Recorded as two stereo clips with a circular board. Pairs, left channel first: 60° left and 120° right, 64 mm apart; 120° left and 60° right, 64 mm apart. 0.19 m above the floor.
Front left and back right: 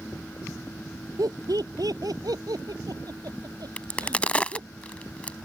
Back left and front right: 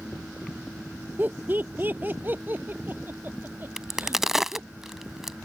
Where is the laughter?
120° right; by 4.7 s 115° right.